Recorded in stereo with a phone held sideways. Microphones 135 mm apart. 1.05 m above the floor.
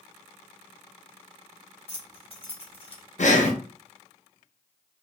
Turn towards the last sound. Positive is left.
turn(degrees=65)  # may be behind; listen again after turning